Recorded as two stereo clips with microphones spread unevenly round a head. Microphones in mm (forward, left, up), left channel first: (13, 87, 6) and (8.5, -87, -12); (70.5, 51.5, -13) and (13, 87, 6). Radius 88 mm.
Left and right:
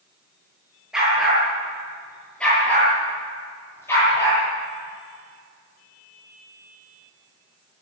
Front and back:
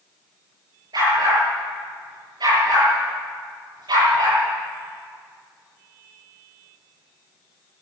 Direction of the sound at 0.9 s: Straight behind.